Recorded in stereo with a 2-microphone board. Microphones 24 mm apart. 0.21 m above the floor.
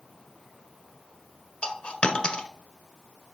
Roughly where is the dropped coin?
Left.